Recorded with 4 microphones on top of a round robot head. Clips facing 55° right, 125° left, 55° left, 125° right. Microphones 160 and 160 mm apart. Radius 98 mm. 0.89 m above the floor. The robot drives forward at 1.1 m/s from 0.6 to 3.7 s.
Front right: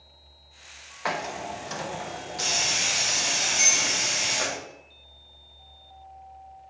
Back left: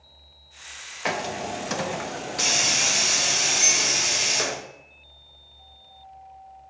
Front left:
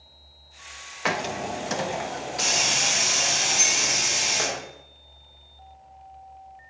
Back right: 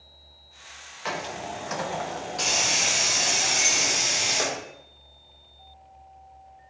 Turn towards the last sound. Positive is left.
turn(degrees=-15)